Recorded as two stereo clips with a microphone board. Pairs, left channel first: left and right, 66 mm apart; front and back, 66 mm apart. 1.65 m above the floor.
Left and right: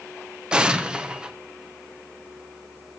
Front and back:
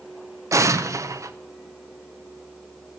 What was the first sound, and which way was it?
An explosion, 165° right.